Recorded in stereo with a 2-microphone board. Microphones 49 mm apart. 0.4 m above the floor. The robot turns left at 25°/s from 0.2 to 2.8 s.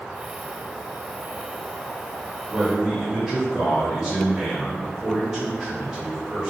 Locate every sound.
2.5 s a man speaking: 20° right (ahead or behind), 1.4 m; by 6.5 s 15° right (ahead or behind), 1.4 m